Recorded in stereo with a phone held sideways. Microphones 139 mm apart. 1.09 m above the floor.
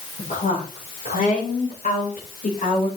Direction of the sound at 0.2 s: 70° left (ahead or behind).